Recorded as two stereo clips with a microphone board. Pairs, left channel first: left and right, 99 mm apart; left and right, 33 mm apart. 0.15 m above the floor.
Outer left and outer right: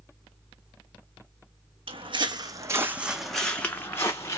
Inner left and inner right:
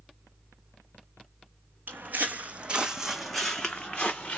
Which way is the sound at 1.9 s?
65° right (ahead or behind).